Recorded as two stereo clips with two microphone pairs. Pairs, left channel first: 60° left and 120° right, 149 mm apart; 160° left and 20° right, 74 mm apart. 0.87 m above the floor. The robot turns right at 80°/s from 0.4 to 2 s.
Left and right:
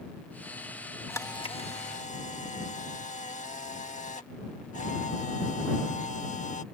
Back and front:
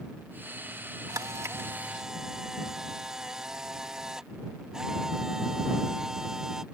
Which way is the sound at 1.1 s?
15° right.